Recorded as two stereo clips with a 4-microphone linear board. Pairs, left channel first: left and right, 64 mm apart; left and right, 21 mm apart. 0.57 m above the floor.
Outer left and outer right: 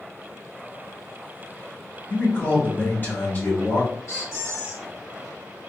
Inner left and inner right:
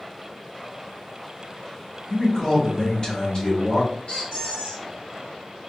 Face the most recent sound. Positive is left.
turn(degrees=40)  # may be behind; listen again after turning